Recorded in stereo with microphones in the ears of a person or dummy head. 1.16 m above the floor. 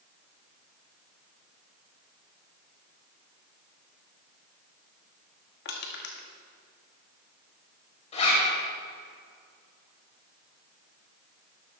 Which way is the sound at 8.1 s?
40° left (ahead or behind).